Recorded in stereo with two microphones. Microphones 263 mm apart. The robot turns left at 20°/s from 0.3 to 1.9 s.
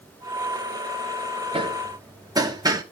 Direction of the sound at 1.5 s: 20° right (ahead or behind).